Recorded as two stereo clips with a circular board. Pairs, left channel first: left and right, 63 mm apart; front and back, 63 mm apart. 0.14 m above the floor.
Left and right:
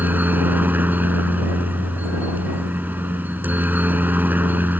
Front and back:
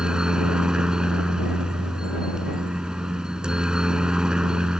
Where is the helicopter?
115° right.